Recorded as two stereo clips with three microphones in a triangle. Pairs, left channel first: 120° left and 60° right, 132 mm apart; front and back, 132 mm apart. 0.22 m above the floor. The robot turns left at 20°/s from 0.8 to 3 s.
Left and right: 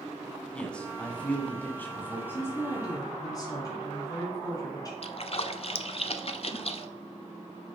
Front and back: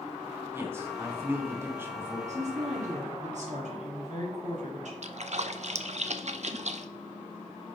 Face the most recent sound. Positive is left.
turn(degrees=155)